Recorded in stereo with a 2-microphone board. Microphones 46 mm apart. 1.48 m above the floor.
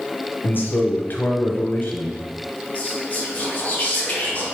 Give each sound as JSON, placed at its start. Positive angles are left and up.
{"t": 0.4, "sound": "a man speaking", "side_deg": 45, "distance_m": 0.8}
{"t": 2.8, "sound": "whispering", "side_deg": 35, "distance_m": 1.7}